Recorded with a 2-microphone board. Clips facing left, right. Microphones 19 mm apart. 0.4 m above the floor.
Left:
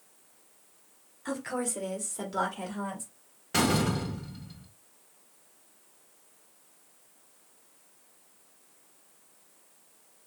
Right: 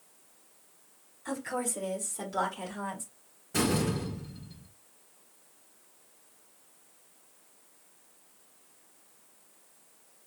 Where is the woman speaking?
20° left (ahead or behind), 1.4 m; by 3.0 s centre (ahead or behind), 1.8 m.